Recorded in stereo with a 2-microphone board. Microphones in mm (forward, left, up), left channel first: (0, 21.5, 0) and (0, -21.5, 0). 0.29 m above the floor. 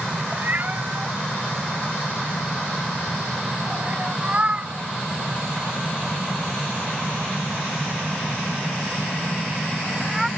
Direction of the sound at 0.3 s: 45° right (ahead or behind).